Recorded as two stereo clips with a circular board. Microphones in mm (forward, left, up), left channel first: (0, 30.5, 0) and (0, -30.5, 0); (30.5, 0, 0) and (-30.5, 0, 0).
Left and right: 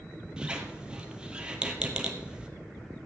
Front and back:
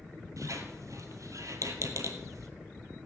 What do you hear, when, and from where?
0.4 s a squeak: 165° right, 1.2 m